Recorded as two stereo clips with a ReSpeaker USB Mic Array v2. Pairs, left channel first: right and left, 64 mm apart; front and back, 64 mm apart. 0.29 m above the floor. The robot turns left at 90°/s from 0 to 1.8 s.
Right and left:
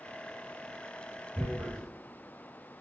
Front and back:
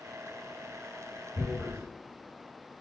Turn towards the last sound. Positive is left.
turn(degrees=-15)